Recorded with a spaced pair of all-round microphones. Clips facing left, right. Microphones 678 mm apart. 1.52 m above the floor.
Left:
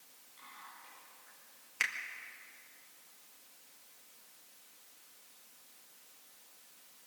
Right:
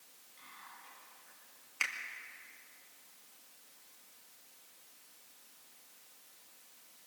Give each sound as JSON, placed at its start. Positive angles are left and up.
{"t": 0.4, "sound": "whispering", "side_deg": -55, "distance_m": 10.0}
{"t": 1.8, "sound": "a finger snap", "side_deg": 45, "distance_m": 1.8}